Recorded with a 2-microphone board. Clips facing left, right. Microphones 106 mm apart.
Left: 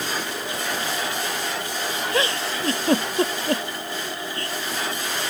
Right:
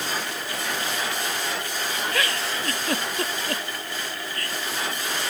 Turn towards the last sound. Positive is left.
turn(degrees=25)  # may be behind; listen again after turning